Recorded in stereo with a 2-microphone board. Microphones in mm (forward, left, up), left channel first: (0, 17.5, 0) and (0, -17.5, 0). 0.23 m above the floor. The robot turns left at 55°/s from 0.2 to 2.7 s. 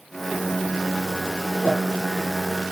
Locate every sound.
1.6 s a whoosh: 40° left (ahead or behind), 3 m; by 1.8 s 30° left (ahead or behind), 3 m